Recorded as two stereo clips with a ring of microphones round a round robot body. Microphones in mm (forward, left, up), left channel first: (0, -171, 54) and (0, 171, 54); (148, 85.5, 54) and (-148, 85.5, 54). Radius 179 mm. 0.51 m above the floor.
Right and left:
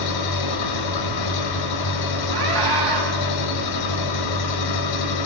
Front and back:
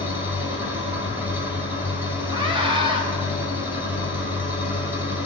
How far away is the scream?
About 4.5 m.